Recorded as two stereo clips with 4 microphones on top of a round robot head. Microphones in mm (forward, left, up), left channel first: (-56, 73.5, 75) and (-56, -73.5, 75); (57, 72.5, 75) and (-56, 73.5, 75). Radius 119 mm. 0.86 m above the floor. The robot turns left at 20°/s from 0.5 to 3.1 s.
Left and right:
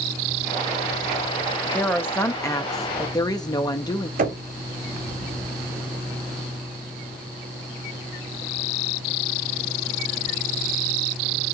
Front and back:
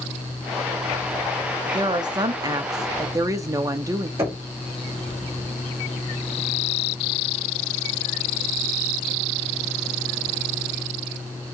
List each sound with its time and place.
1.7 s a woman speaking: 165° left, 0.8 m; by 4.1 s 135° left, 0.8 m
4.2 s knocking: 110° right, 1.7 m